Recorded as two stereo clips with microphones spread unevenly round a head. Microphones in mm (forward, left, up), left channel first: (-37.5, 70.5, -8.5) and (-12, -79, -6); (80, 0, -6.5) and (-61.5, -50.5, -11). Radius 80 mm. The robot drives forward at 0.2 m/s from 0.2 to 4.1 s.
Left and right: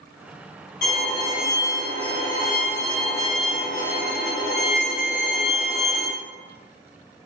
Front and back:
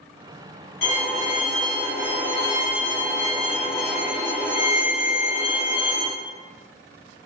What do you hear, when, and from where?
0.8 s a violin: 60° left, 1.7 m; by 6.1 s 85° left, 1.5 m